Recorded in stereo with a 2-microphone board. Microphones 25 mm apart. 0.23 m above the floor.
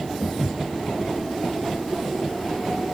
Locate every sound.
0.2 s footsteps: 45° left (ahead or behind), 0.9 m